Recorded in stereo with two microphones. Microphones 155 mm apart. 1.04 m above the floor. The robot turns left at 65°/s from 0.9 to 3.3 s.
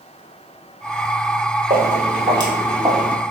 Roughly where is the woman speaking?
I don't hear a woman speaking.